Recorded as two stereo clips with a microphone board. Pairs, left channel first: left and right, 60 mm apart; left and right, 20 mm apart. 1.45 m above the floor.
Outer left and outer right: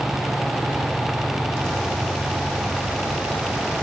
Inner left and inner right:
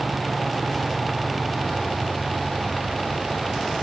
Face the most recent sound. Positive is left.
No sound to turn to.